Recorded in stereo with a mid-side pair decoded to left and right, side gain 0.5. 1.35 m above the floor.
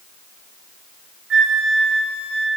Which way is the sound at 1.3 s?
50° right.